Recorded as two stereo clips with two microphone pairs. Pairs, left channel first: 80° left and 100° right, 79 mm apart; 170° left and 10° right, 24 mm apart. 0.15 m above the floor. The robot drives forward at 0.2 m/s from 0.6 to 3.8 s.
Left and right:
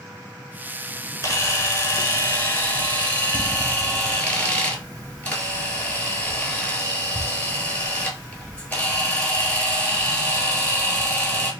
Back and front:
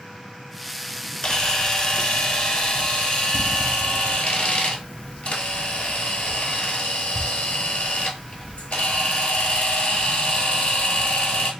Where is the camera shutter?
120° left, 0.6 m; by 11.5 s 150° left, 0.9 m.